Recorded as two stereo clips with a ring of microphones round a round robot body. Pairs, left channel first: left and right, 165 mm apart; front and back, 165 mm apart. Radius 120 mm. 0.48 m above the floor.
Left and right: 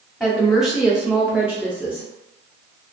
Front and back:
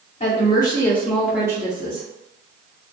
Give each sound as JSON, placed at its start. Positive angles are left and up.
{"t": 0.2, "sound": "a woman speaking", "azimuth_deg": 0, "distance_m": 1.0}